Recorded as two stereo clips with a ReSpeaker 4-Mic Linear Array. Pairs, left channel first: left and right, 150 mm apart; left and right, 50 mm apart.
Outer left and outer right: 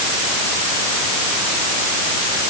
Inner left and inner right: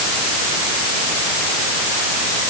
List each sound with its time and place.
Only background noise.